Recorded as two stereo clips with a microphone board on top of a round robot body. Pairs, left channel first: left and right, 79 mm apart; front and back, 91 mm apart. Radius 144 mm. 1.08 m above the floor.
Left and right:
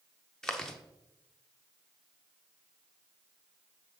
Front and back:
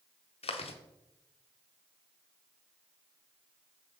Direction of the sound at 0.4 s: 5° left.